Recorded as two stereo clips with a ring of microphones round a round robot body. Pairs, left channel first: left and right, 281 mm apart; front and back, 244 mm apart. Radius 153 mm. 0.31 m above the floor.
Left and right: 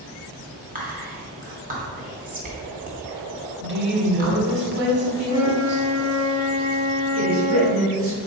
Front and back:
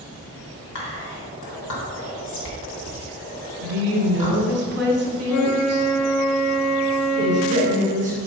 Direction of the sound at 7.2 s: 120° right.